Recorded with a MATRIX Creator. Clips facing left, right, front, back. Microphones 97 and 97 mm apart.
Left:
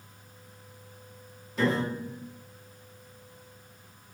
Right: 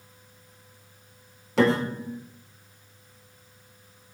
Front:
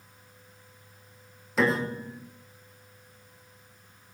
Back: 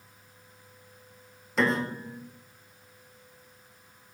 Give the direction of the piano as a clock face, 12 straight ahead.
3 o'clock.